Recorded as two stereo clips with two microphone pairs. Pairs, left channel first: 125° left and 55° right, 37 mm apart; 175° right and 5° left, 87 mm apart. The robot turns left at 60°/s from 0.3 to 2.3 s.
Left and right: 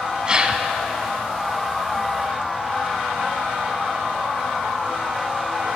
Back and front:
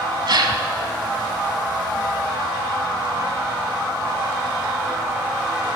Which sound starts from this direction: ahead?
A gasp, at 0.3 s.